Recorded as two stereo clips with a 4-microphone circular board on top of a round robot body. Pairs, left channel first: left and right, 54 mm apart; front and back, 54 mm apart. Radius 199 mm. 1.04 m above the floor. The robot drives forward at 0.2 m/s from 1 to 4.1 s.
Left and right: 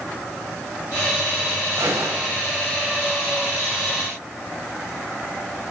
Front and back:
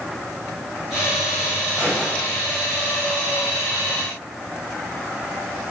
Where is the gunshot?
80° right, 7 m.